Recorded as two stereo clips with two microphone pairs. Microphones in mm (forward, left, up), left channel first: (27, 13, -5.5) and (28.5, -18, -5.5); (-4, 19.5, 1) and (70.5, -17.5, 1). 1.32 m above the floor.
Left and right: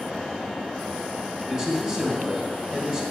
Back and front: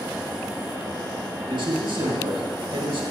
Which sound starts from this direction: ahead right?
A man speaking, at 1.5 s.